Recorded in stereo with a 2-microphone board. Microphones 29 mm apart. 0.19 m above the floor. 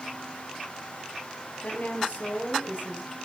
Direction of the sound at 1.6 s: 70° left (ahead or behind).